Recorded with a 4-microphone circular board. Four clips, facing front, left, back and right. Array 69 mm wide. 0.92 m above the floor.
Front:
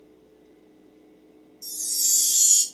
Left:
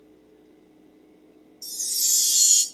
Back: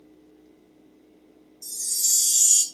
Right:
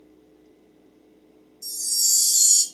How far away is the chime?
About 0.9 m.